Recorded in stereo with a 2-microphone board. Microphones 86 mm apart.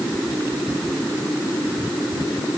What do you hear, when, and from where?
Only background noise.